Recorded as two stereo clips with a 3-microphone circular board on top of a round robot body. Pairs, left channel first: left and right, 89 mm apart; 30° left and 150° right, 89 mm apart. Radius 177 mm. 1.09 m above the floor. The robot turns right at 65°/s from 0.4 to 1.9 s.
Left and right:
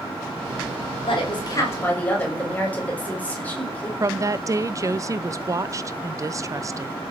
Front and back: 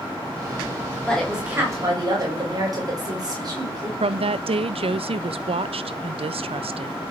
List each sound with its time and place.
1.1 s a woman speaking: 110° left, 7.5 m; by 3.9 s 165° left, 7.5 m
4.0 s a woman speaking: 145° right, 0.9 m